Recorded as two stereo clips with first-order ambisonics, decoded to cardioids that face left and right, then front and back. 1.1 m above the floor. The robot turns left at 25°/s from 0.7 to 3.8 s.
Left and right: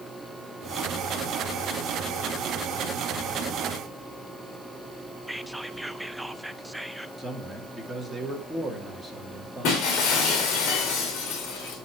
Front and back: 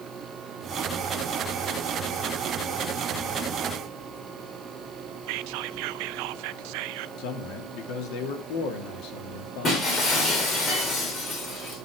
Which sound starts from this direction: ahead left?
Breaking glass, at 9.6 s.